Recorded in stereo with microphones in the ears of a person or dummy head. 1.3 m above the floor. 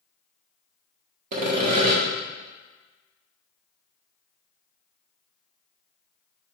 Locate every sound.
1.3 s sawing: 55° right (ahead or behind), 1.4 m